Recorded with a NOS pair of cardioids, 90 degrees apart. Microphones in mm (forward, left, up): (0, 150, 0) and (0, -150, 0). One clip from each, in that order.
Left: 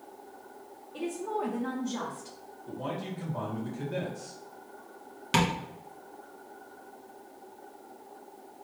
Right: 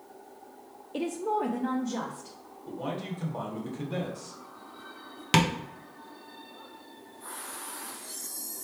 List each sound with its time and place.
0.9 s a woman speaking: 55° right, 0.5 m; by 2.4 s 10° right, 1.1 m
2.7 s a man speaking: 35° right, 2.0 m
5.3 s tapping: 35° right, 0.9 m